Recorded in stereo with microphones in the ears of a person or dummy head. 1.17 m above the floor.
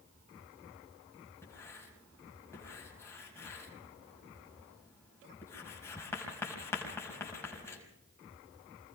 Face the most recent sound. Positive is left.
turn(degrees=15)  # may be behind; listen again after turning